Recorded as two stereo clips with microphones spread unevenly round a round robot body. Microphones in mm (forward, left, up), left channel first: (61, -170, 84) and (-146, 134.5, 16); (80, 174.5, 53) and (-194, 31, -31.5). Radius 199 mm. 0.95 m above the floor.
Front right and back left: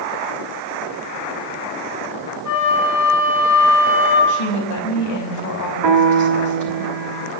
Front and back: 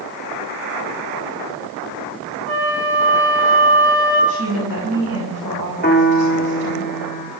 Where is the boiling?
No boiling in this recording.